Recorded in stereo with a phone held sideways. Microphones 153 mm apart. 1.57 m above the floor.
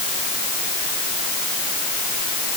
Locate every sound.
Only background noise.